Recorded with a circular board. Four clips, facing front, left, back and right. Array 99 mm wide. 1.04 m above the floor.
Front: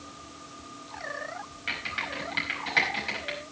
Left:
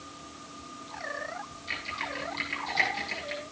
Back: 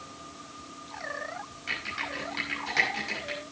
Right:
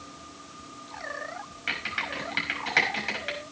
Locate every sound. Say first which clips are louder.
1.7 s typing on a keyboard: right 3 dB, front 1 dB; 75° right, 5.5 m